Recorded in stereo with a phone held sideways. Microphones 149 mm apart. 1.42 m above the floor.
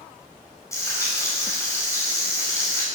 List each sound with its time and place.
0.7 s frying: 20° left (ahead or behind), 5.5 m